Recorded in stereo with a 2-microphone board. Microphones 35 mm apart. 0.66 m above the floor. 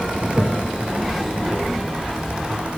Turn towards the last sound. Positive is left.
turn(degrees=0)  # may be behind; listen again after turning